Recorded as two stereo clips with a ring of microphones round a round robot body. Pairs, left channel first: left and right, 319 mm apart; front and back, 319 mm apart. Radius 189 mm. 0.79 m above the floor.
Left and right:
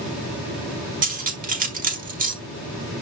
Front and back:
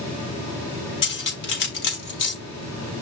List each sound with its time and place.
1.0 s cutlery clinking: 25° right, 4 m